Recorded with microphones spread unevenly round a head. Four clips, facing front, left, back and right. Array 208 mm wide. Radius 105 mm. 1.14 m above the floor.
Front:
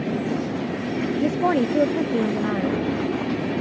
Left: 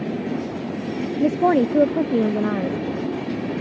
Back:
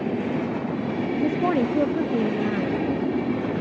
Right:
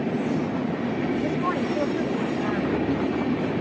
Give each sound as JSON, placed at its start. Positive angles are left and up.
{"t": 1.2, "sound": "a woman speaking", "azimuth_deg": 90}